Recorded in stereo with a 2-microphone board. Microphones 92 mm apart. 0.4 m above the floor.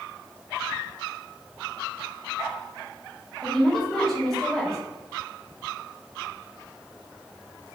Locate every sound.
3.4 s a woman speaking: 5° left (ahead or behind), 1.4 m